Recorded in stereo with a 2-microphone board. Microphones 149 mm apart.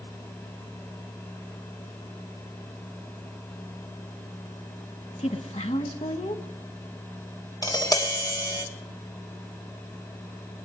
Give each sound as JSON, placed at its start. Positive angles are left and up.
{"t": 5.2, "sound": "a woman speaking", "side_deg": 45, "distance_m": 1.5}
{"t": 7.6, "sound": "tapping", "side_deg": 25, "distance_m": 1.3}